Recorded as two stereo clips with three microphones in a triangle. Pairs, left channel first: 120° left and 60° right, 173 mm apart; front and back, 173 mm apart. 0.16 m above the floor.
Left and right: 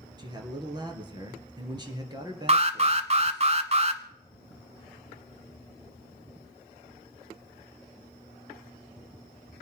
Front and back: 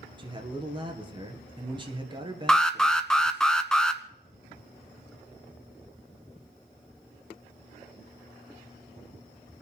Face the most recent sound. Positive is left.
turn(degrees=-85)